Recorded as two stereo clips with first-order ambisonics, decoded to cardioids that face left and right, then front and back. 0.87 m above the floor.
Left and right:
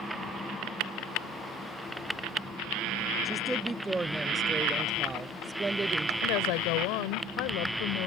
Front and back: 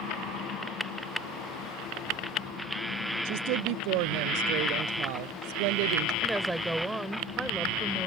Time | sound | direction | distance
3.2 | a woman speaking | 175° right | ?
6.2 | a woman speaking | 95° left | ?